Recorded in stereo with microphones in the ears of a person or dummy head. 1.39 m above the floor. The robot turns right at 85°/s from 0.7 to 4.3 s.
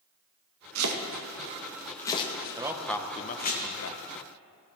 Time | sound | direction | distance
0.8 | chopping | 85° right | 1.3 m
2.6 | a man speaking | 20° right (ahead or behind) | 1.0 m